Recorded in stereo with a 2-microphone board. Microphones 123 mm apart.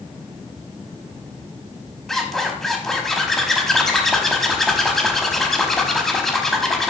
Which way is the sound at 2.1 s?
Centre (ahead or behind).